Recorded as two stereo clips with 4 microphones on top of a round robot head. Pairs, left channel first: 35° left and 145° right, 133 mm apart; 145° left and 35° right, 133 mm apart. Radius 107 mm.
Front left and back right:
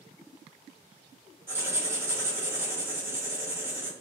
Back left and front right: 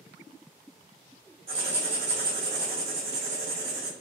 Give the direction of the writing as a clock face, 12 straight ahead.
2 o'clock.